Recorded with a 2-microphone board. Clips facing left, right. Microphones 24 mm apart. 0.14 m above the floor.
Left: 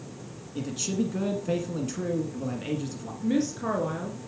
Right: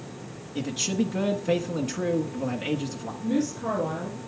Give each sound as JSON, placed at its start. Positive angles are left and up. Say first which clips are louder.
{"t": 0.6, "sound": "a man speaking", "louder": "right 2 dB", "side_deg": -25, "distance_m": 1.1}
{"t": 3.2, "sound": "a woman speaking", "louder": "even", "side_deg": 20, "distance_m": 1.8}